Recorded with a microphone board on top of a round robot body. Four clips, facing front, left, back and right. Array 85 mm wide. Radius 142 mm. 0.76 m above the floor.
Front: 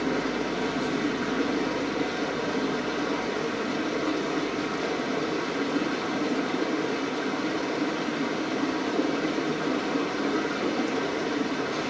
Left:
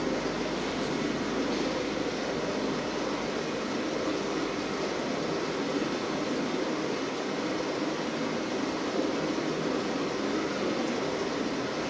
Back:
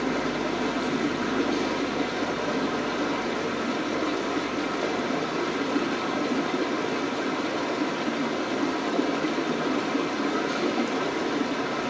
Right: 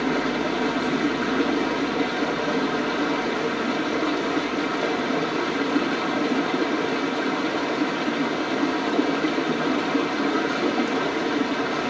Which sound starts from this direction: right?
Running water, at 0.0 s.